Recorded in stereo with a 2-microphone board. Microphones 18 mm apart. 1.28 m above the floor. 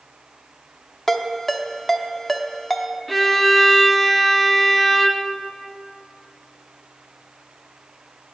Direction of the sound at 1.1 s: 15° left (ahead or behind).